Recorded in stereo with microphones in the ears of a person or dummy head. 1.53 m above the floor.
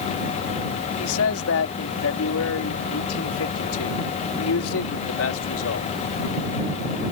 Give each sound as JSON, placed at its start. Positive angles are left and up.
{"t": 1.0, "sound": "a man speaking", "side_deg": 80}